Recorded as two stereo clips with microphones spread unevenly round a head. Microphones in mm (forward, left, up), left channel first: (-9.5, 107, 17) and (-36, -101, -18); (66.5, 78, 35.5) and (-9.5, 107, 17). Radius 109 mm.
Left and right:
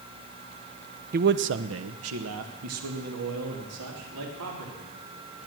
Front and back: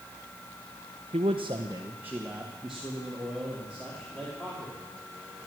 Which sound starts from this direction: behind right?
A man speaking, at 1.1 s.